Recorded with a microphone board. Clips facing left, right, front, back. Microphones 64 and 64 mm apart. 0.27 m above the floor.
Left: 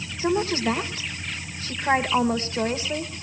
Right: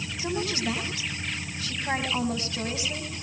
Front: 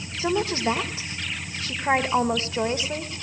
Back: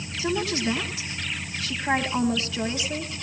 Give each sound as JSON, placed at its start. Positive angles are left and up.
{"t": 0.2, "sound": "a woman speaking", "azimuth_deg": 45, "distance_m": 1.7}